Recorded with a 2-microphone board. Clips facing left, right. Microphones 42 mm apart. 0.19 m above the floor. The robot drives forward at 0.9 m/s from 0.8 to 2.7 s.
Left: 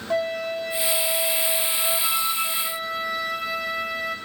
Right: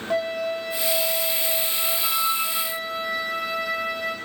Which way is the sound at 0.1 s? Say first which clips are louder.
Even; centre (ahead or behind).